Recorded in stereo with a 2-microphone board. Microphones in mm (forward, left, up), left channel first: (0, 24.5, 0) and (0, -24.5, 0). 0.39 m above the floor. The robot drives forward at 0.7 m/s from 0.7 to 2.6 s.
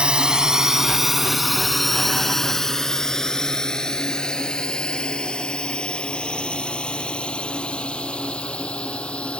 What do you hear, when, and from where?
0.0 s a drone: 20° right (ahead or behind); by 9.4 s 25° left (ahead or behind)